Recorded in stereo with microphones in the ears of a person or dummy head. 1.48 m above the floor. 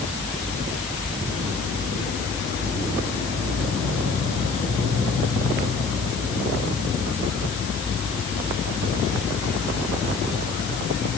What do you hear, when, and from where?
Only background noise.